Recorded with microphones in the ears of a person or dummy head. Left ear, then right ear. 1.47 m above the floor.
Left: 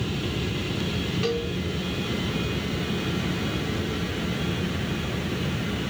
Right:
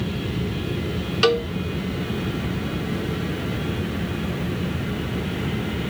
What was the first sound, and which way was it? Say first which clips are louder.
A cowbell: right 10 dB; 60° right (ahead or behind).